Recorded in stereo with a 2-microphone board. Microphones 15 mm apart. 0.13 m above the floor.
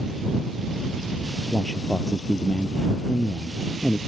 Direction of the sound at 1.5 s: 30° left (ahead or behind).